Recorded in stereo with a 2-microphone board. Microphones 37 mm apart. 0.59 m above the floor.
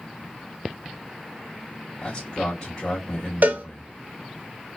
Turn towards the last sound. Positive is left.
turn(degrees=-70)  # may be behind; listen again after turning